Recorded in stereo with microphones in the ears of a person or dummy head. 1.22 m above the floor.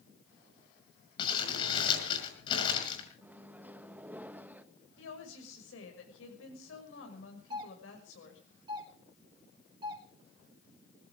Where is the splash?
No splash in this recording.